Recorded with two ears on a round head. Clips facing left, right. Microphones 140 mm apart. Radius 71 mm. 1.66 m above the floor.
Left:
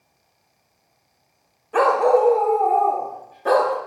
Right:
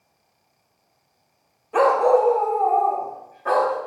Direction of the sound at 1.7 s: 5° right (ahead or behind).